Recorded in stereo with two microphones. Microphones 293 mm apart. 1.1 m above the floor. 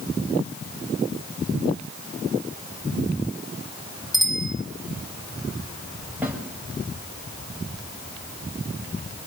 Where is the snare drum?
5° right (ahead or behind), 7 m.